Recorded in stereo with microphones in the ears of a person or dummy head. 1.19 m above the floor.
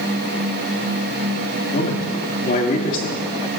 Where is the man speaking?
45° left (ahead or behind), 2.5 m.